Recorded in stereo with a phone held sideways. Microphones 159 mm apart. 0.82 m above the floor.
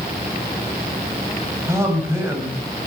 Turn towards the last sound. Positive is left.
turn(degrees=-15)  # may be behind; listen again after turning